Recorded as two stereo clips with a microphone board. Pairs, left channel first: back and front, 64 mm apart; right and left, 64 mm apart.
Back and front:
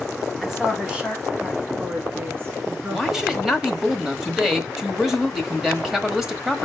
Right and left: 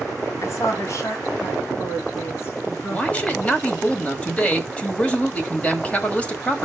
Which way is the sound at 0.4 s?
85° right.